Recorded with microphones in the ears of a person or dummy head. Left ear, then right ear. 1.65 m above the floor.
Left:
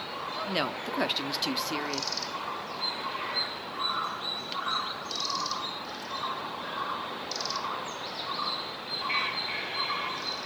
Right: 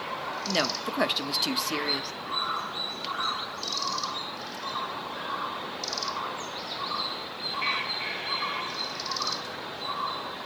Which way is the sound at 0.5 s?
Centre (ahead or behind).